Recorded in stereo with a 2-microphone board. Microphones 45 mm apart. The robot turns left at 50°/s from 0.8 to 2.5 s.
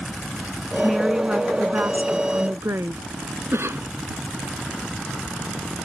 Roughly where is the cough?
Right.